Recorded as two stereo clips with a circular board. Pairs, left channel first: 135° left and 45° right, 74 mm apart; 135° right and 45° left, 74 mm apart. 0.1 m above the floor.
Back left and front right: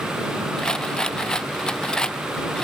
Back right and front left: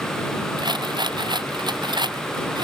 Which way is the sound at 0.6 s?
55° left.